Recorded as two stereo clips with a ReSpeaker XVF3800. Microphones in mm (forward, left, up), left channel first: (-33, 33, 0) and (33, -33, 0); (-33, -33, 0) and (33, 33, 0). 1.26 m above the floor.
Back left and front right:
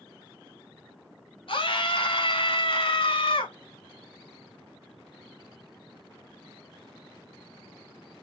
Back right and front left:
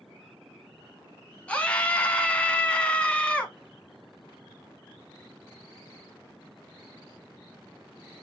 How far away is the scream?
About 1.4 m.